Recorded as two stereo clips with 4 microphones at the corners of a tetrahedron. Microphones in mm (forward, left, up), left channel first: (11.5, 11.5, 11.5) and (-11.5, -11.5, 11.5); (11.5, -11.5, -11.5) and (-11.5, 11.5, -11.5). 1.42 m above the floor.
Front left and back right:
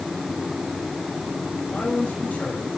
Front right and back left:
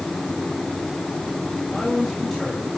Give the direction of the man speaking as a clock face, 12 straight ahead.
11 o'clock.